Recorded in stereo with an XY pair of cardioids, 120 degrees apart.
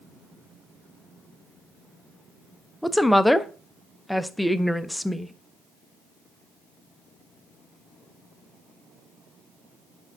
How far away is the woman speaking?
About 0.5 m.